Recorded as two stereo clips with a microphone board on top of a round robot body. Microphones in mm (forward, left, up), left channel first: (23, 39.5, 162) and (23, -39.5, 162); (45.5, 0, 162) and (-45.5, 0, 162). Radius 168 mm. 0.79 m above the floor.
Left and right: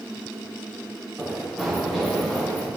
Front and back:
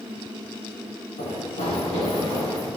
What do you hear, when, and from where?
1.2 s running footsteps: 10° right, 4 m; by 2.7 s 15° left, 5 m